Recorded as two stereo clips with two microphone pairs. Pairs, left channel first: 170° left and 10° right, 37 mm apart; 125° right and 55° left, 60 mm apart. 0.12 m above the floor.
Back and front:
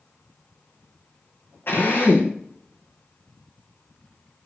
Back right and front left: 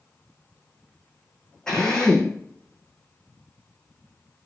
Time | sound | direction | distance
1.7 | a drill | 155° left | 4 m